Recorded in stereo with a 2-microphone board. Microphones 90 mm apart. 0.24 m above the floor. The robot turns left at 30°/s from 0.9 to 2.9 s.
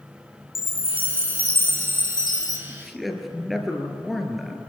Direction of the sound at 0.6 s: 95° left.